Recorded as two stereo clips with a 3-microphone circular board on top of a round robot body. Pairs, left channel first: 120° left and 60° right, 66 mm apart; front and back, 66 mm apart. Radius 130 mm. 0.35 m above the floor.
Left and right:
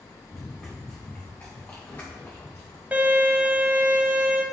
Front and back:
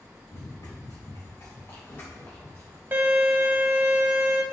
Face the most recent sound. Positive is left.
turn(degrees=-125)